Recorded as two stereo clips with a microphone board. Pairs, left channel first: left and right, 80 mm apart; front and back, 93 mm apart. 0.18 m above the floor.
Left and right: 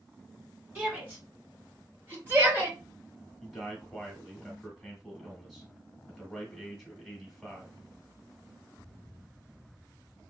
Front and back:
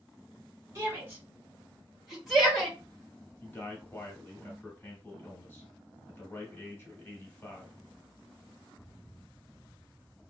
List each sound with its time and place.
0.8 s a shout: 145° right, 1.8 m; by 2.8 s 70° right, 1.6 m
3.4 s a man speaking: 5° left, 1.1 m